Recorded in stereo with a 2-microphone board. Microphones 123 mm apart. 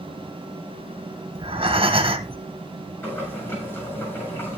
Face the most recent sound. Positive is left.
turn(degrees=20)  # may be behind; listen again after turning